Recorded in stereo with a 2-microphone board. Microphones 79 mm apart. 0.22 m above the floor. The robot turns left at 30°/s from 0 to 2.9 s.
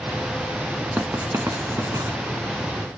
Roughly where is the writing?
Right.